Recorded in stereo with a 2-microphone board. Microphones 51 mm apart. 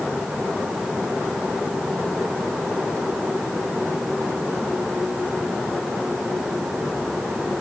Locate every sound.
Only background noise.